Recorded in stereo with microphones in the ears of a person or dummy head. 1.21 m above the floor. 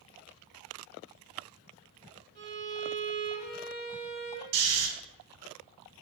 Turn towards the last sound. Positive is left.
turn(degrees=-70)  # may be behind; listen again after turning